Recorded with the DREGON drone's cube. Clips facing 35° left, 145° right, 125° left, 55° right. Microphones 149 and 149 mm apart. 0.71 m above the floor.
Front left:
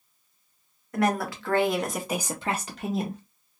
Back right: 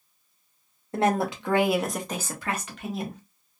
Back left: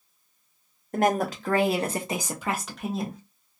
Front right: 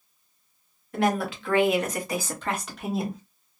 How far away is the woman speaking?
About 1.0 m.